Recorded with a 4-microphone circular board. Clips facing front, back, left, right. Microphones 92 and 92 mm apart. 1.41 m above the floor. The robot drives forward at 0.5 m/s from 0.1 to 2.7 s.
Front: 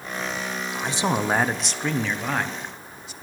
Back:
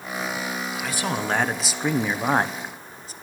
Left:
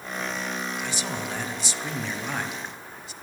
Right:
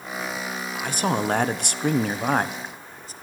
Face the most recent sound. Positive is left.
turn(degrees=-135)